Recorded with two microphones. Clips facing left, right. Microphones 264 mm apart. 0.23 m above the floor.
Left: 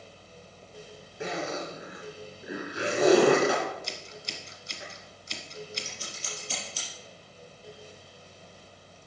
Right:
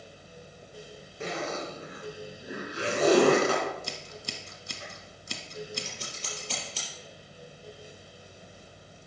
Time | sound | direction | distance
1.2 | a zipper | 15° left (ahead or behind) | 3 m
3.8 | scissors | 55° right (ahead or behind) | 1.3 m
5.8 | scissors | 70° right (ahead or behind) | 4 m